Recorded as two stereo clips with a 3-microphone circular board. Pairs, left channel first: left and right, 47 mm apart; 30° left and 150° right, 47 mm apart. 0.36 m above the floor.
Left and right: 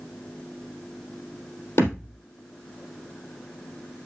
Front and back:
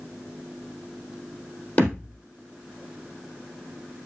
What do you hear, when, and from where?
1.8 s a thud: 90° left, 3.5 m